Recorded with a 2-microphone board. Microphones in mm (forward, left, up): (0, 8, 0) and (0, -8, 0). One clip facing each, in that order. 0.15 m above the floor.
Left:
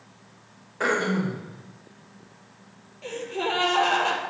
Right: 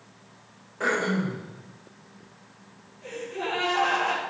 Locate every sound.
0.8 s throat clearing: 25° left (ahead or behind), 5.5 m
3.0 s a gasp: 40° left (ahead or behind), 4 m